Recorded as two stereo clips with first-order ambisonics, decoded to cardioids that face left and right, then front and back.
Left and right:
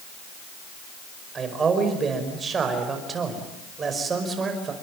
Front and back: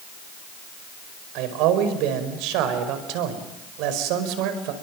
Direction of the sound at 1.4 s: 160° right.